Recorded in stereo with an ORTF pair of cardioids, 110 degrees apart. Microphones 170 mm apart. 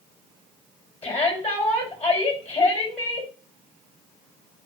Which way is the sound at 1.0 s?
35° left.